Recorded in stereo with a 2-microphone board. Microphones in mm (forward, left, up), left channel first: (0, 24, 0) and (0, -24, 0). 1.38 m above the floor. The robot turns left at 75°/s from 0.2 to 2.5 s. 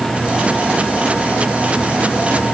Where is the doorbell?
I don't hear a doorbell.